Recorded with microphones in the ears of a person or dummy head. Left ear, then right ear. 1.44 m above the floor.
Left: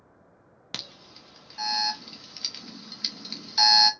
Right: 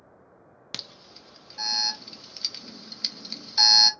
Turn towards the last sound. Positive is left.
turn(degrees=-5)  # may be behind; listen again after turning